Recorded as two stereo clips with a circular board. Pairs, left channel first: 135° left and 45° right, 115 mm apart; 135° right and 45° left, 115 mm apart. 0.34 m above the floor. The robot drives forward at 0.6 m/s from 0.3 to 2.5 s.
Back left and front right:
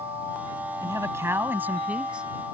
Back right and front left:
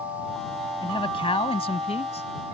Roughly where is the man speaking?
Right.